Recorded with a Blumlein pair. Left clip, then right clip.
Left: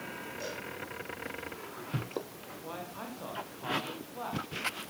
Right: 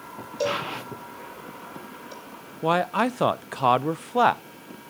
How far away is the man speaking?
About 0.6 m.